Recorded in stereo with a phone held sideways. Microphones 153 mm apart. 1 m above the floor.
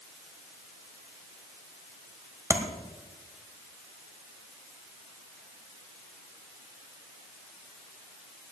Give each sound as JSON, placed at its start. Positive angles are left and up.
{"t": 2.5, "sound": "tapping", "side_deg": -20, "distance_m": 1.7}